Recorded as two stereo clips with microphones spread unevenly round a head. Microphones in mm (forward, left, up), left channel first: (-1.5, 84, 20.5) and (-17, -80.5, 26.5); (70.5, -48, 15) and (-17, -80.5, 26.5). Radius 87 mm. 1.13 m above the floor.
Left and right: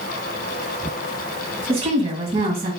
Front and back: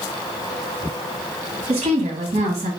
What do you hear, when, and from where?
1.7 s a woman speaking: 150° right, 1.6 m